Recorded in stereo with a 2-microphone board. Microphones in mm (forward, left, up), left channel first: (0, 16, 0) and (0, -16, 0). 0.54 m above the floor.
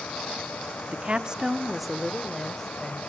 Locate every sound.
0.9 s a woman speaking: 35° right (ahead or behind), 1.0 m; by 3.1 s 20° left (ahead or behind), 2.5 m